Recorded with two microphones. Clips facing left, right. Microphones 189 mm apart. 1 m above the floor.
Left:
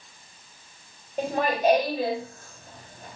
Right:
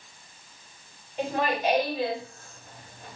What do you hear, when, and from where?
1.2 s laughter: 50° left (ahead or behind), 3.5 m